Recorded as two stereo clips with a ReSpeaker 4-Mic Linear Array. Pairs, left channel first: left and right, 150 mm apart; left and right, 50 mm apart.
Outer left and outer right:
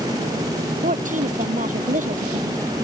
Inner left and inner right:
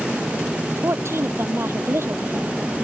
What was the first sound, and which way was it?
A woman speaking, 60° right (ahead or behind).